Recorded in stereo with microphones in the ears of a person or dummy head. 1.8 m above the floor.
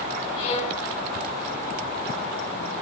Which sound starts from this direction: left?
A violin, at 0.4 s.